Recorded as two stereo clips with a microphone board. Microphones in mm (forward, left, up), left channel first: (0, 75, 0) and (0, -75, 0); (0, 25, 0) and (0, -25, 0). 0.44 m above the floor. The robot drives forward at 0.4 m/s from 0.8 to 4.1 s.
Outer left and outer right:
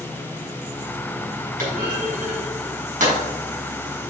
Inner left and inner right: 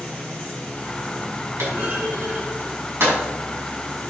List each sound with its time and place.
1.6 s a clunk: 70° right (ahead or behind), 3 m; by 3.2 s 60° right (ahead or behind), 3.5 m